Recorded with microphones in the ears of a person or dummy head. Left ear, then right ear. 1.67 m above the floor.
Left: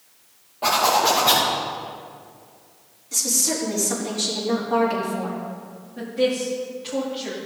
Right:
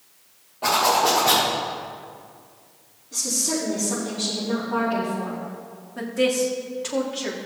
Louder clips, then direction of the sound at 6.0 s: Right 1 dB; 35° right (ahead or behind).